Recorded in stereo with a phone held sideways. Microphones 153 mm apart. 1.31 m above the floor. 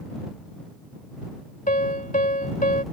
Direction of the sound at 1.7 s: 55° left (ahead or behind).